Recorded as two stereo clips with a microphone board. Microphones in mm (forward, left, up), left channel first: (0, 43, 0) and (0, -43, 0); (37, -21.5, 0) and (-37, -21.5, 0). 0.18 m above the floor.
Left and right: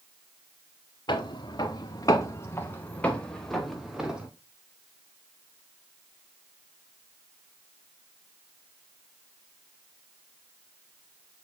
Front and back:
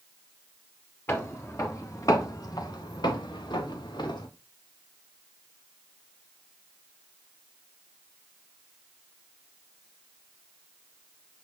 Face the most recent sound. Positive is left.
turn(degrees=-10)